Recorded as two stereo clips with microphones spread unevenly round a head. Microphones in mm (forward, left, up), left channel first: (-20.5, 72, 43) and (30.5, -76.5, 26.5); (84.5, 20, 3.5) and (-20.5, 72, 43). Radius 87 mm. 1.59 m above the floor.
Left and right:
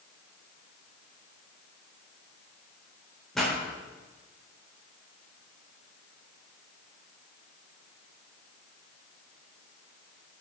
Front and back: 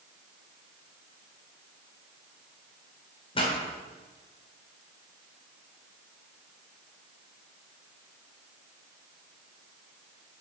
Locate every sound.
3.4 s a pop: 25° left, 3.5 m